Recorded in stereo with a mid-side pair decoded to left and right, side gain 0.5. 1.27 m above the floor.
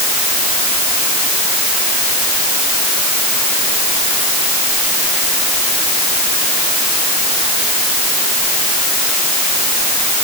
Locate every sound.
Only background noise.